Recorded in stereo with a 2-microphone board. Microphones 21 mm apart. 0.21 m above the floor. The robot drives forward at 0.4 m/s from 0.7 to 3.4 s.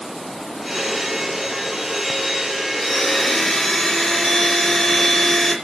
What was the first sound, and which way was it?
A blender, centre (ahead or behind).